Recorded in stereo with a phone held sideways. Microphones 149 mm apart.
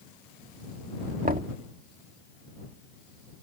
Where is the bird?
No bird in this recording.